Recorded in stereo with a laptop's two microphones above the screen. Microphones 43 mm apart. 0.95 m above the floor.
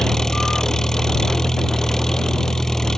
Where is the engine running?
15° left (ahead or behind).